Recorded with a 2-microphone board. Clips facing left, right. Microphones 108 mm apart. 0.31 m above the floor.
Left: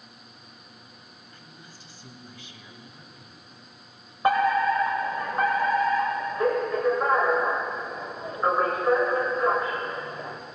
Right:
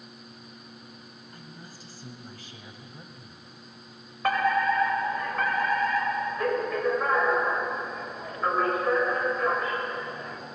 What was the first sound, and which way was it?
A woman speaking, 40° right (ahead or behind).